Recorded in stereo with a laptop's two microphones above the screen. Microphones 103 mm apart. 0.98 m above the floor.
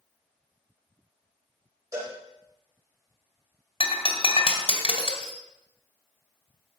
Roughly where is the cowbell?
Right.